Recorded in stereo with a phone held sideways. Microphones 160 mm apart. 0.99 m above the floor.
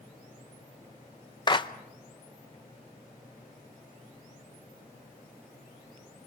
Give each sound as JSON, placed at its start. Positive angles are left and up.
{"t": 1.5, "sound": "a clap", "side_deg": 30, "distance_m": 0.7}